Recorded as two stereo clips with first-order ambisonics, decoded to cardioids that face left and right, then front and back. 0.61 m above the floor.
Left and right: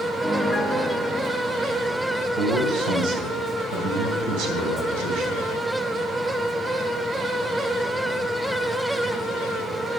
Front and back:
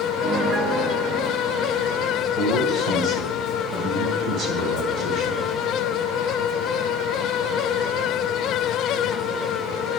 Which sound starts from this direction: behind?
A piano, at 0.2 s.